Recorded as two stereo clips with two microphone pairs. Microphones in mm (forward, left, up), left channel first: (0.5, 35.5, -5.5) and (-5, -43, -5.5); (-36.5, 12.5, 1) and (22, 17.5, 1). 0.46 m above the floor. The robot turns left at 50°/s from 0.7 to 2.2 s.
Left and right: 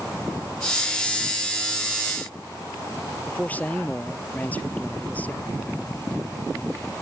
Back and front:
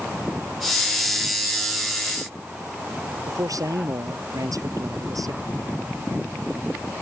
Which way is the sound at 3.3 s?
15° left.